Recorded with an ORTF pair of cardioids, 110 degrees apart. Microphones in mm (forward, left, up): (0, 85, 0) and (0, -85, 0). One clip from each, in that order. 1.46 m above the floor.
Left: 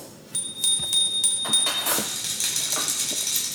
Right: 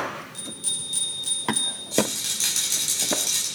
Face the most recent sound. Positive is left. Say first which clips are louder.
# right 2 dB
turn(degrees=-5)